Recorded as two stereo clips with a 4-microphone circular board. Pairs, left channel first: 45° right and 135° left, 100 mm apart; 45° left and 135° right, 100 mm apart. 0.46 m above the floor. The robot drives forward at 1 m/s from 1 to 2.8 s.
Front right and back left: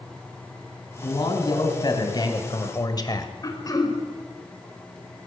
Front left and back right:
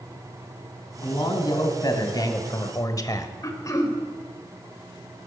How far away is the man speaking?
About 3.5 m.